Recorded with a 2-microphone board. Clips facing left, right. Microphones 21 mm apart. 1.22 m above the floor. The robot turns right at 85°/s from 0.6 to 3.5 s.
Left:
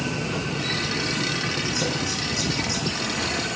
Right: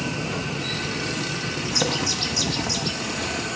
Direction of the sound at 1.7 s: 110° right.